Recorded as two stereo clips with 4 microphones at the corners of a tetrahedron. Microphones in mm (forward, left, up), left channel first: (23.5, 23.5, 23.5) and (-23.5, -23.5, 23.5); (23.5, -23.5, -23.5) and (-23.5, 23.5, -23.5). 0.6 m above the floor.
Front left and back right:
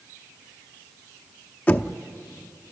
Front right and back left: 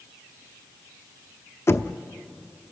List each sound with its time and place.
1.7 s knocking: 15° right, 0.7 m